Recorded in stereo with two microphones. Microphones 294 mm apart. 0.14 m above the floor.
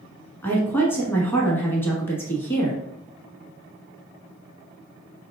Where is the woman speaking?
5° left (ahead or behind), 1.2 m.